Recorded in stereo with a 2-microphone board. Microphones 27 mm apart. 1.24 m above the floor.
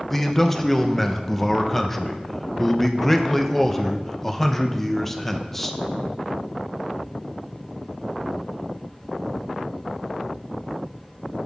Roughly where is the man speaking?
Centre.